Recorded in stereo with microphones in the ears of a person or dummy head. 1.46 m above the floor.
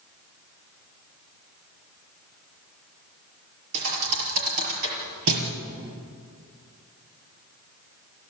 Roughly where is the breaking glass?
I don't hear breaking glass.